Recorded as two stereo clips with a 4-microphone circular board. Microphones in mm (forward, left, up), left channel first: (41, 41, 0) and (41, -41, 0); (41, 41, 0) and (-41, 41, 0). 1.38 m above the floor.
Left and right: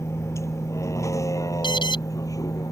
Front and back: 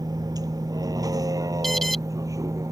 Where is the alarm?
85° left.